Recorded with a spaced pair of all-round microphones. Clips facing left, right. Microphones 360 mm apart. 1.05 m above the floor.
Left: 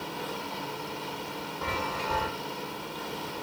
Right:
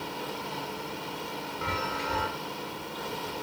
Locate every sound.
1.6 s a chime: 5° right (ahead or behind), 1.3 m